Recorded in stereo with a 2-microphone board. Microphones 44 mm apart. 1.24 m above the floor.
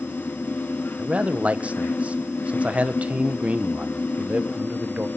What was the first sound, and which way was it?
A man speaking, 35° right (ahead or behind).